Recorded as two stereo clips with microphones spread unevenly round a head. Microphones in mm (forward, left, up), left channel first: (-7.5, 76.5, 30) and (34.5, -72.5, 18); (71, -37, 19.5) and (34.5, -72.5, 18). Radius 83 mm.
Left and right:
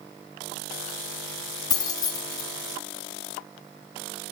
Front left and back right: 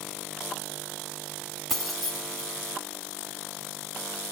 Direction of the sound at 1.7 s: 130° left.